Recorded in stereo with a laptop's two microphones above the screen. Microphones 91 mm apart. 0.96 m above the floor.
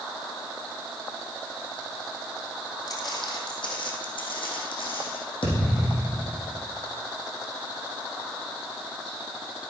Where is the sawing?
I don't hear sawing.